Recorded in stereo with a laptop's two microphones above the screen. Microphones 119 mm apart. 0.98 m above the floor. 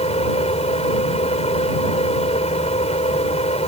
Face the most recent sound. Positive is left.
turn(degrees=65)  # may be behind; listen again after turning